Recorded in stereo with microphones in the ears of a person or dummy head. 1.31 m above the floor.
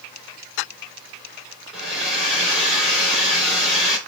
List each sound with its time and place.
1.7 s a hair dryer: centre (ahead or behind), 3.5 m